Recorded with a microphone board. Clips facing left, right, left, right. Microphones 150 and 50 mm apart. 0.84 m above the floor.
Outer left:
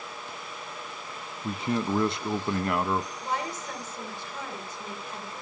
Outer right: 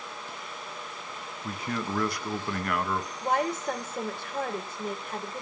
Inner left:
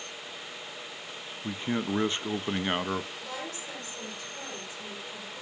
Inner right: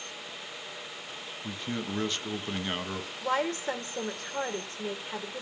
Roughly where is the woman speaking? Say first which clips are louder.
Outer right 5 dB, inner right 9 dB; right.